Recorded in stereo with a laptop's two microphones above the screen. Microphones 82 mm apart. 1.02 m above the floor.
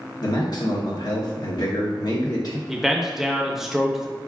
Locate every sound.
0.2 s a man speaking: 55° left (ahead or behind), 0.8 m
2.7 s a man speaking: 5° right (ahead or behind), 0.6 m